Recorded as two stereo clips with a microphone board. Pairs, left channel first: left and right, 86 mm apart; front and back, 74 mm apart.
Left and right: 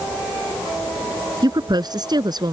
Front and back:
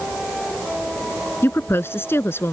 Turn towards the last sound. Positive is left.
turn(degrees=-55)